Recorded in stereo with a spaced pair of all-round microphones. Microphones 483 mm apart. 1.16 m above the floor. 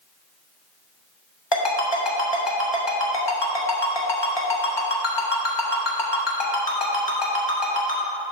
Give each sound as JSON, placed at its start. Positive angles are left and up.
{"t": 1.5, "sound": "a ringtone", "side_deg": 60, "distance_m": 1.3}